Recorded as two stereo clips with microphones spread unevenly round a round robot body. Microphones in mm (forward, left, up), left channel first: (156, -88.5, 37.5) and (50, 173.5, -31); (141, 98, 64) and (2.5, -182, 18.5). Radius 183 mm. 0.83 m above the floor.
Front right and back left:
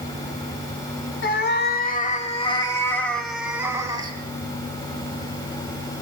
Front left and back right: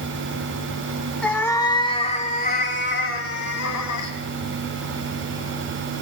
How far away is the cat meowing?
About 2.5 m.